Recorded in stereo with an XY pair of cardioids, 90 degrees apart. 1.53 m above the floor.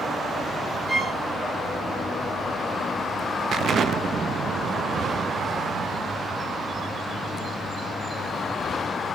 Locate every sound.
0.9 s a violin: 30° right, 3.5 m
3.5 s an explosion: 60° right, 0.6 m